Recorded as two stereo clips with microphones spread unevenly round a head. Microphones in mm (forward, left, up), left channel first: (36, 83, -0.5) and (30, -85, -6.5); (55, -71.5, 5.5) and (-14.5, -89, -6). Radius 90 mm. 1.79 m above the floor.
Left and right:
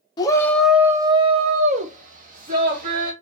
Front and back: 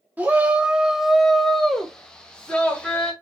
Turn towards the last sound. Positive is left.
turn(degrees=-60)